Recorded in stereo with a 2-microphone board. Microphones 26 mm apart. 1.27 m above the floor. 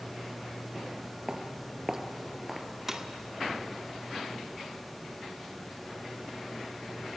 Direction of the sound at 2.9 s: 10° right (ahead or behind).